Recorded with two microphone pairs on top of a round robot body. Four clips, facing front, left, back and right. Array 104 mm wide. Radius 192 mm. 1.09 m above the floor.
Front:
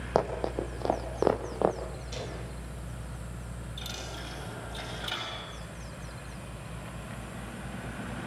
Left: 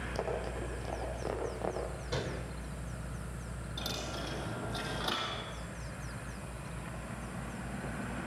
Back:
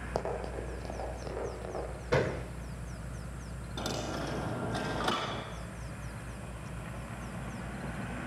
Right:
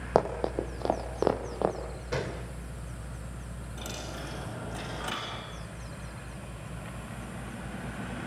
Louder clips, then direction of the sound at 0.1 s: Right 11 dB, front 7 dB; 70° right.